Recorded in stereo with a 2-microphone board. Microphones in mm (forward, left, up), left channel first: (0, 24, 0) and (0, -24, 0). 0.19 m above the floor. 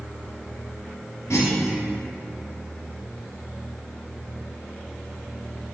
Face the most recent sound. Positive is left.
turn(degrees=75)  # may be behind; listen again after turning